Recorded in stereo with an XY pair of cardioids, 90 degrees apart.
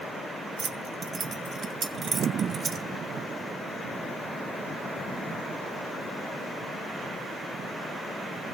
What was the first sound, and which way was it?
Keys jangling, 40° right.